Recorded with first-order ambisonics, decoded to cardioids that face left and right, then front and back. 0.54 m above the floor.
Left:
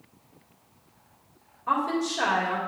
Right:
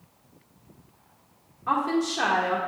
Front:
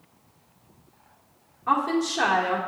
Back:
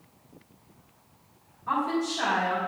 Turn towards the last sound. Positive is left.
turn(degrees=-50)